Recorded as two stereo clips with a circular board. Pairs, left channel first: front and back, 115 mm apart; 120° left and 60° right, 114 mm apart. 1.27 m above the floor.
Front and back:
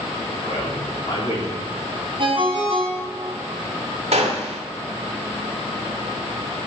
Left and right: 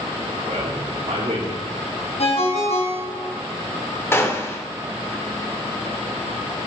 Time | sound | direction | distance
0.4 | a man speaking | 55° right | 3 m
2.2 | a ringtone | 140° left | 4 m
4.1 | a gunshot | 175° right | 1.8 m